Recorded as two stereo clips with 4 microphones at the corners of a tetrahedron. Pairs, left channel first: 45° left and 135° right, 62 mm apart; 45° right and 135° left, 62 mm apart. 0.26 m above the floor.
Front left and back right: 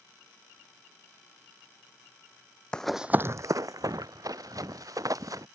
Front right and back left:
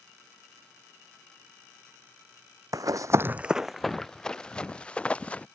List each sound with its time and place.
2.7 s running footsteps: 120° left; by 5.5 s 115° right